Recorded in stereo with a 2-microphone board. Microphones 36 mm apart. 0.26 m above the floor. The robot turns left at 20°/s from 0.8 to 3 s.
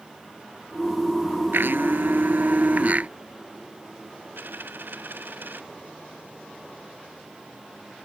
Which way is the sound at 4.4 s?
65° right (ahead or behind).